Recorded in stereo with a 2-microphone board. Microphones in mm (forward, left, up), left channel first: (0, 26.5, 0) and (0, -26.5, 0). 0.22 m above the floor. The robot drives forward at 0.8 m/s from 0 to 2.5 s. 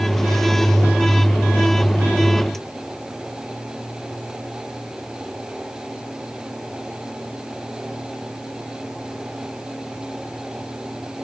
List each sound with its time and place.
Only background noise.